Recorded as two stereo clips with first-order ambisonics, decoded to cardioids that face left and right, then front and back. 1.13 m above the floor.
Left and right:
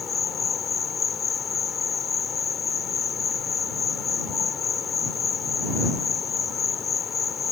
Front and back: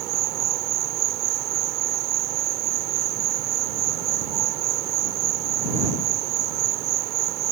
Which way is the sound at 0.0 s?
155° left.